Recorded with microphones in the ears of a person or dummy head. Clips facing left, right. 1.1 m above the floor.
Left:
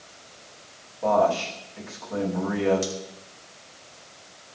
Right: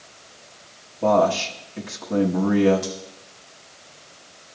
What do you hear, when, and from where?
1.0 s a man speaking: 35° right (ahead or behind), 1.2 m
2.8 s scissors: 60° left (ahead or behind), 4 m